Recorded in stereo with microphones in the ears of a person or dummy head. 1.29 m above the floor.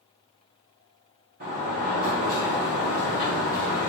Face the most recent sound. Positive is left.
turn(degrees=-40)  # may be behind; listen again after turning